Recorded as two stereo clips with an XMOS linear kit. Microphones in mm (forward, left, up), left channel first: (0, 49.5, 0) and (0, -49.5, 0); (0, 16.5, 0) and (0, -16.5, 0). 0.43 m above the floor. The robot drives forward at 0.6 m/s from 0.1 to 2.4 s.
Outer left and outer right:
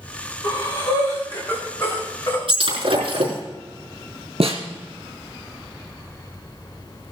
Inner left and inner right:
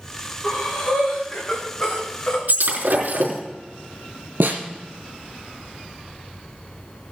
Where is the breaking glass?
65° right (ahead or behind), 5 m.